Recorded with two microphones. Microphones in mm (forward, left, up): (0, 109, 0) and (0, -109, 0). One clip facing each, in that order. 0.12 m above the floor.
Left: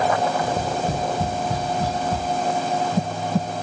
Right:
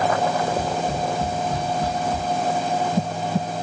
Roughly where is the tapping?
Left.